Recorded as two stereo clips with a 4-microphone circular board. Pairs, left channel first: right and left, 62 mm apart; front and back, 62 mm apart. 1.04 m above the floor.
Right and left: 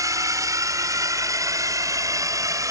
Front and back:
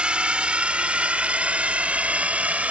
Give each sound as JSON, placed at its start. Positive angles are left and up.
{"t": 0.0, "sound": "a drone", "azimuth_deg": 110}